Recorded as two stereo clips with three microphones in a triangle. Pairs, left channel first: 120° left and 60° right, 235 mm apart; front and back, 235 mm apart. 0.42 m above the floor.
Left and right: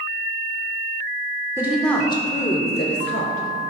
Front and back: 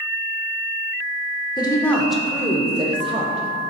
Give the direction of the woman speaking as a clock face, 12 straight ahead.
12 o'clock.